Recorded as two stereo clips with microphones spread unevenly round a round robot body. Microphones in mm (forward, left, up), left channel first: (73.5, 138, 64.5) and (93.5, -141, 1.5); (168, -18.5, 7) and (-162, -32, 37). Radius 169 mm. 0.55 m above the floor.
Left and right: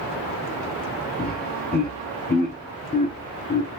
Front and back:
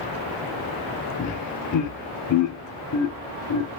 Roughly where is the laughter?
Ahead left.